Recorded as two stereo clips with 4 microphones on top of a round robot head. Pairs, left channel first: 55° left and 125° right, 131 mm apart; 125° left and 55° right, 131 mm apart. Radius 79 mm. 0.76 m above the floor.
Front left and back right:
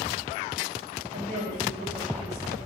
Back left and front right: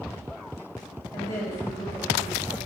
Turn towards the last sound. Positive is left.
turn(degrees=-165)